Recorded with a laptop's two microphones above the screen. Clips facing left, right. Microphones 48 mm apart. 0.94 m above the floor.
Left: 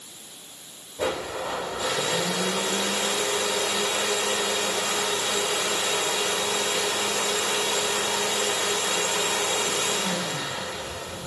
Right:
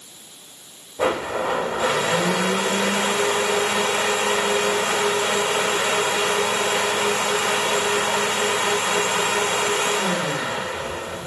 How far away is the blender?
About 0.7 m.